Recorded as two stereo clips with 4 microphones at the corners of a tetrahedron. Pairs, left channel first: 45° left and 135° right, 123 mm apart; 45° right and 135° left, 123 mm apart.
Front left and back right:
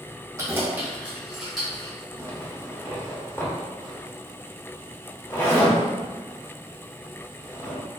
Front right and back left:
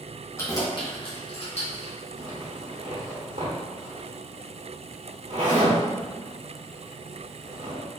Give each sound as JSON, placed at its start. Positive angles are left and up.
{"t": 0.4, "sound": "keys jangling", "azimuth_deg": -95, "distance_m": 0.9}
{"t": 2.2, "sound": "a zipper", "azimuth_deg": 115, "distance_m": 1.3}